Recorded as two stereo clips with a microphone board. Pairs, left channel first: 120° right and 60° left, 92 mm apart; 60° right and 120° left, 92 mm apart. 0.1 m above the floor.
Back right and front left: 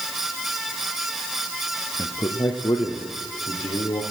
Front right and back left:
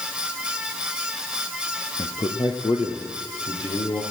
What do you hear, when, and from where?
2.0 s a man speaking: 90° right, 1.7 m; by 4.0 s 100° right, 4.5 m